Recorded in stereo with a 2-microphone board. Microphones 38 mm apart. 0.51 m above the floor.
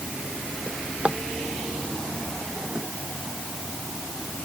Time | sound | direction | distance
0.7 | a drawer | 30° right (ahead or behind) | ?